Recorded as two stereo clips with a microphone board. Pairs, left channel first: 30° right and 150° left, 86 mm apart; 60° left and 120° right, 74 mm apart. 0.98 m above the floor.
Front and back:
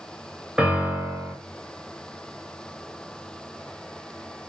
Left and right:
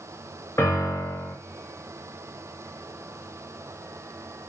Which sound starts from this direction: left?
A piano, at 0.6 s.